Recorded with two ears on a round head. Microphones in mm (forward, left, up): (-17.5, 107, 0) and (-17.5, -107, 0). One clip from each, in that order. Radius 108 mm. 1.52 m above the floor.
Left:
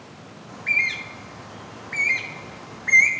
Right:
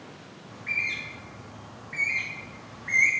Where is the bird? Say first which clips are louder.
Left 7 dB; 50° left (ahead or behind), 1.1 m.